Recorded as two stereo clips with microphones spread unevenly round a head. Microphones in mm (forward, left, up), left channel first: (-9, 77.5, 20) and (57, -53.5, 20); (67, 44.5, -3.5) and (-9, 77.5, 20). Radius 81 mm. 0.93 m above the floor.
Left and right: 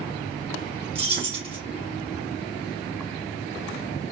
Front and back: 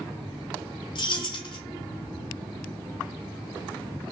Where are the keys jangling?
10° right, 3 m.